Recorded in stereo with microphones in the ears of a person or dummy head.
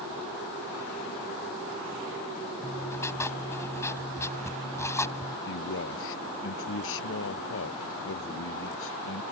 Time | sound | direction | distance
2.6 | writing | 15° left (ahead or behind) | ?
5.5 | a man speaking | 75° left (ahead or behind) | ?